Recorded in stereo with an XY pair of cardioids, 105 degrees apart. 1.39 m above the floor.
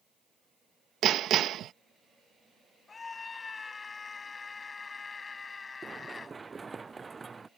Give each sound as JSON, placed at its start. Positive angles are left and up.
{"t": 1.0, "sound": "hammering", "azimuth_deg": -70}
{"t": 2.9, "sound": "a scream", "azimuth_deg": 30}
{"t": 5.8, "sound": "running footsteps", "azimuth_deg": -25}